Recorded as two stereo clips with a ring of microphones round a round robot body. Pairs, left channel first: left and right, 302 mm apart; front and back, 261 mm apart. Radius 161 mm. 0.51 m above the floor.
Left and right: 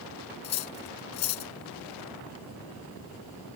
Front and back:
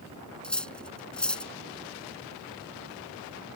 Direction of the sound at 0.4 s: 85° left.